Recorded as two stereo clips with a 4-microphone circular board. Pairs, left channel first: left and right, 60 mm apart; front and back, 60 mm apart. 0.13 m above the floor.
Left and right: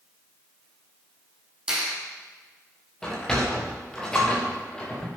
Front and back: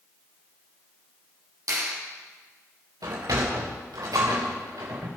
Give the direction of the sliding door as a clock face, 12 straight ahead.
6 o'clock.